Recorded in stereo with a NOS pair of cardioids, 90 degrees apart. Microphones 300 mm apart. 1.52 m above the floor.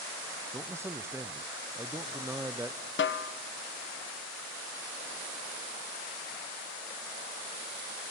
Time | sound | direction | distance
0.5 | a man speaking | 10° right | 0.7 m
3.0 | a snare drum | 40° left | 1.2 m